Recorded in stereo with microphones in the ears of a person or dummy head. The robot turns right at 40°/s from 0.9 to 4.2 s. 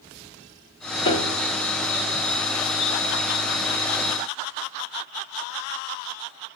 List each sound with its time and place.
1.1 s a piano: 25° left (ahead or behind), 1.2 m; by 1.5 s 15° left (ahead or behind), 1.2 m